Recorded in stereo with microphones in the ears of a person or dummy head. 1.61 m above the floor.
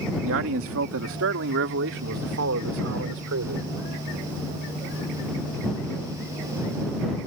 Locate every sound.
0.2 s a man speaking: 70° right (ahead or behind); by 3.8 s 75° right (ahead or behind)